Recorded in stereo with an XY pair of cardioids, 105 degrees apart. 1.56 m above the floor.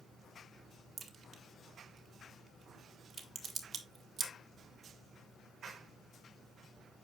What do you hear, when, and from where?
1.0 s a crack: 45° right, 1.6 m